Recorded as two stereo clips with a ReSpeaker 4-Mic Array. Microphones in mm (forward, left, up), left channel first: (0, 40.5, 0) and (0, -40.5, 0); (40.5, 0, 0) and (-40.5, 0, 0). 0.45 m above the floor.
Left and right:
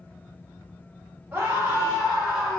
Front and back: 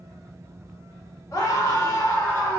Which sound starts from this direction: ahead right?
A scream, at 1.3 s.